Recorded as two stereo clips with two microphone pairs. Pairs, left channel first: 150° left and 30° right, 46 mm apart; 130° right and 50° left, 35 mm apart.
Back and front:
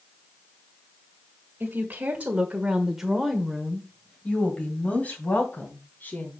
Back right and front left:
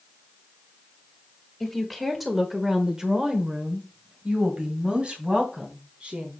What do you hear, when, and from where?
1.6 s a woman speaking: 45° right, 1.6 m; by 6.3 s 100° left, 3.5 m